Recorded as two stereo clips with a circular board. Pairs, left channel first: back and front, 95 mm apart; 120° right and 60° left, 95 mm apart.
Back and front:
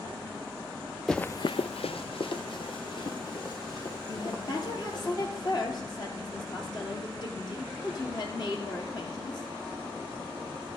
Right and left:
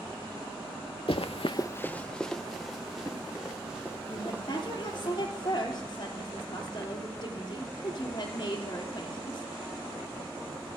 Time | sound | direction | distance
1.1 | running footsteps | 95° right | 0.7 m
4.1 | a woman speaking | 150° right | 3 m